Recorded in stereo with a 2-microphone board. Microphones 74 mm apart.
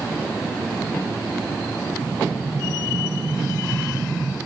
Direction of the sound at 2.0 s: 70° right (ahead or behind).